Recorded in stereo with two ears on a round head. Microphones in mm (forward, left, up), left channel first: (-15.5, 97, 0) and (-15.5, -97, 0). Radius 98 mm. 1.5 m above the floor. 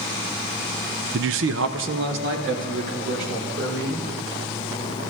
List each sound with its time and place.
1.1 s a man speaking: 55° right (ahead or behind), 0.5 m; by 4.1 s 60° right (ahead or behind), 5 m